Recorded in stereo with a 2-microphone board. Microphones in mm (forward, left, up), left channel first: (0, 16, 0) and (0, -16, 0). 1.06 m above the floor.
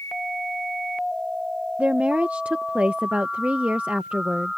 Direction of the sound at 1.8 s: 50° right (ahead or behind).